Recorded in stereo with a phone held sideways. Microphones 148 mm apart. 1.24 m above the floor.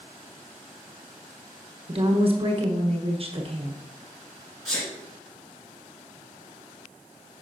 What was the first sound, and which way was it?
A woman speaking, 40° right (ahead or behind).